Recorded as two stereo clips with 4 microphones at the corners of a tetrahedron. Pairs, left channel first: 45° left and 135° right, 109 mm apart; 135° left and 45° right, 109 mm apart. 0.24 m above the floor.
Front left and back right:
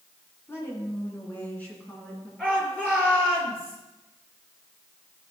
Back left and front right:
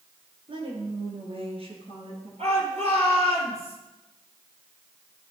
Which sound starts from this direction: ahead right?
A shout, at 2.4 s.